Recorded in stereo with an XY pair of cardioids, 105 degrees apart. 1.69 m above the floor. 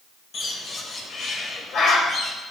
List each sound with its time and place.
0.3 s a bird: 60° left, 2.5 m